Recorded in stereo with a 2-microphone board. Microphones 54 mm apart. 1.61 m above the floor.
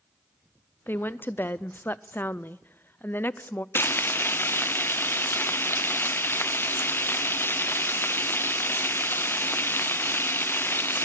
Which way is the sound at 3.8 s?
45° left (ahead or behind).